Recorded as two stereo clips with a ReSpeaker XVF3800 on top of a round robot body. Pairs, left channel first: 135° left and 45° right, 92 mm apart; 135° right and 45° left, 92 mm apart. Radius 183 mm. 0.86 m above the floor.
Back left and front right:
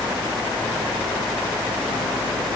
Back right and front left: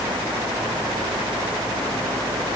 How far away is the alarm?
No alarm in this recording.